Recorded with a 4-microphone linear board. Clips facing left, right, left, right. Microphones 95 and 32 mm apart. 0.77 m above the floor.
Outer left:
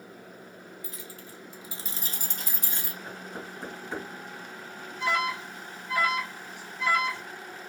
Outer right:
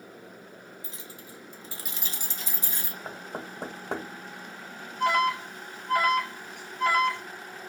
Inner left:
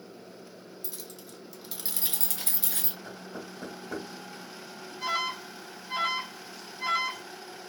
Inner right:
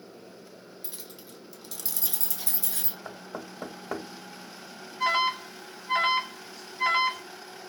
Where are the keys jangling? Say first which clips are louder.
Outer left 1 dB, inner left 1 dB; 25° right (ahead or behind), 0.9 m; by 3.0 s 55° left (ahead or behind), 1.1 m.